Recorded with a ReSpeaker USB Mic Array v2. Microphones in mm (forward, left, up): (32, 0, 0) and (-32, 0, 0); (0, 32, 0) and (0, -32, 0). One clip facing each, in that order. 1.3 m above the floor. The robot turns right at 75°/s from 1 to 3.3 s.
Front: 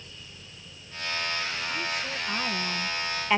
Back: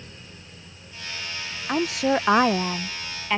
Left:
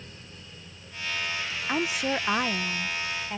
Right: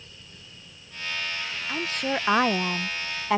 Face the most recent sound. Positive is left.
turn(degrees=-85)